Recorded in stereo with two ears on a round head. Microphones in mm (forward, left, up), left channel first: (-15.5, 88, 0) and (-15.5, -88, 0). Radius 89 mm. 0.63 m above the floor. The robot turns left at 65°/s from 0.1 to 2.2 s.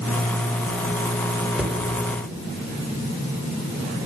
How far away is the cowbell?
No cowbell in this recording.